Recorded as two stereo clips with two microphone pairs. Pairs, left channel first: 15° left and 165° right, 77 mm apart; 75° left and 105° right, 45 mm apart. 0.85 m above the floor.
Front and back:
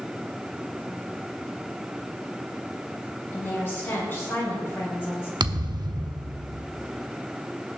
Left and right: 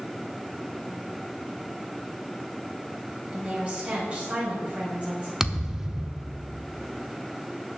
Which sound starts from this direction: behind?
A thud, at 5.4 s.